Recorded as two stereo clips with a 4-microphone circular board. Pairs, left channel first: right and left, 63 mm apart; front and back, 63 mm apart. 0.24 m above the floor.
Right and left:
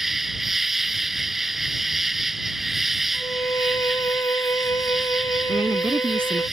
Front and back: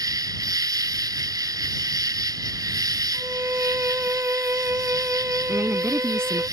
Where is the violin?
130° right.